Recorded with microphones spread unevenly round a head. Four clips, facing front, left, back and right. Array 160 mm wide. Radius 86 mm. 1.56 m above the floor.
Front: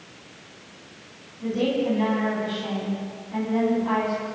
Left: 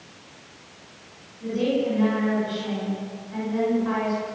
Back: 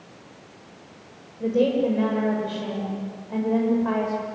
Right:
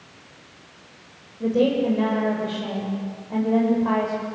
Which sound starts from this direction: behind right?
A woman speaking, at 1.4 s.